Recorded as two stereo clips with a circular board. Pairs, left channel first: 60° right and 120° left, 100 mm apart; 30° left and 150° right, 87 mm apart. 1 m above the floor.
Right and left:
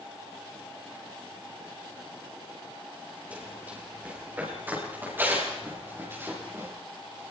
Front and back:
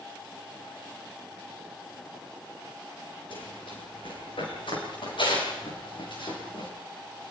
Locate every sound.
3.3 s running footsteps: 45° left, 9 m; by 6.7 s 55° left, 7.5 m